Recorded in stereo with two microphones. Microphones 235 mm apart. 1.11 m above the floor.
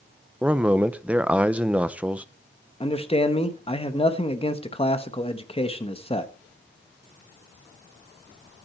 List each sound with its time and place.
0.4 s a man speaking: 5° right (ahead or behind), 0.7 m
2.8 s a man speaking: 25° left (ahead or behind), 1.2 m